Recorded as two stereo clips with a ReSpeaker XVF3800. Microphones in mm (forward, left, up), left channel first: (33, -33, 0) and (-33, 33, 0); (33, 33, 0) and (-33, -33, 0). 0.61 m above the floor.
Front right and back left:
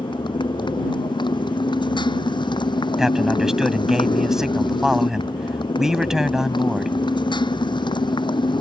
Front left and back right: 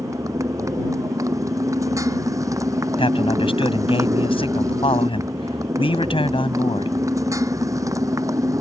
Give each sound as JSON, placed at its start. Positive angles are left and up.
{"t": 0.0, "sound": "a motorcycle", "azimuth_deg": -80}
{"t": 3.0, "sound": "a man speaking", "azimuth_deg": 50}